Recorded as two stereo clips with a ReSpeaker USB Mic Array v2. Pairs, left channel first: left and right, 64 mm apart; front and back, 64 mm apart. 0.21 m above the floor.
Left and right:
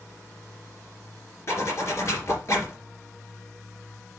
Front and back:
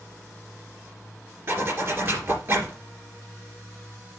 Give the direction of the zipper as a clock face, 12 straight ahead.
8 o'clock.